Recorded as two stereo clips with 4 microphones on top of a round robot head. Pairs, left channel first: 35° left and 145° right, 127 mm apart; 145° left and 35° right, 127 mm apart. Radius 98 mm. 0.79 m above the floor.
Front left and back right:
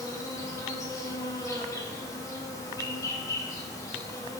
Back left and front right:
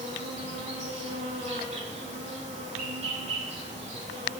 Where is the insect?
20° right, 3 m.